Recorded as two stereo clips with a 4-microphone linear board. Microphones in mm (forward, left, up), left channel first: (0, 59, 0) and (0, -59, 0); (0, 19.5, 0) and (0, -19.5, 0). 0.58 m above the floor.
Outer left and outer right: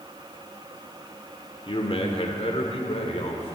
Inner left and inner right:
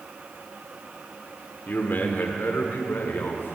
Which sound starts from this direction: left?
A man speaking, at 1.7 s.